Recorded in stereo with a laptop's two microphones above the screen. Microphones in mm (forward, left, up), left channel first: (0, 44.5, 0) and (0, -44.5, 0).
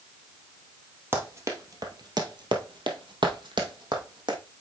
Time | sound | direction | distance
1.1 | running footsteps | 25° right (ahead or behind) | 1.6 m